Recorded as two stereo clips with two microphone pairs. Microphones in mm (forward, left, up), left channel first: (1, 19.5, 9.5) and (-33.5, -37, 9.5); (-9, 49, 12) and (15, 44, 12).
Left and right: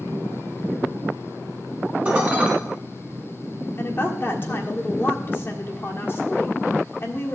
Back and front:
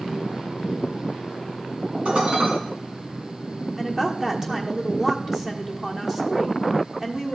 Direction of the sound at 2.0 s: 55° right.